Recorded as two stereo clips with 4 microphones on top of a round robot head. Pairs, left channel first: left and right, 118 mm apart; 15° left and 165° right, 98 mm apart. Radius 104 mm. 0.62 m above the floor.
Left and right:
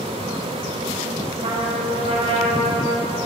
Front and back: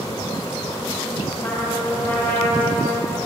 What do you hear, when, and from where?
1.4 s a trumpet: 65° right, 6 m